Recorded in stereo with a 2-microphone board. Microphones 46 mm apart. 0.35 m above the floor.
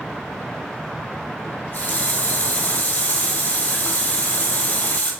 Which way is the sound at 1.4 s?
50° left (ahead or behind).